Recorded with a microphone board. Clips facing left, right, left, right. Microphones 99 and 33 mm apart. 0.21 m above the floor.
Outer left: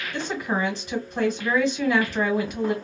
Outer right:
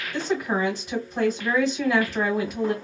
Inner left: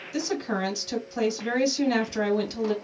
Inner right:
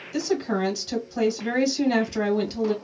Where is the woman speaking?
Centre (ahead or behind), 1.4 m.